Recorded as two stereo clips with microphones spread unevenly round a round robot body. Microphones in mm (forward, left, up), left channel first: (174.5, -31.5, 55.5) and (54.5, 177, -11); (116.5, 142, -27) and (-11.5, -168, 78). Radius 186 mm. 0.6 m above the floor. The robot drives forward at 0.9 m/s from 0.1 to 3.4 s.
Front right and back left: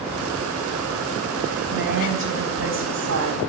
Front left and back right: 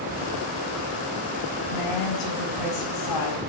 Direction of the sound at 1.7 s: 85° left.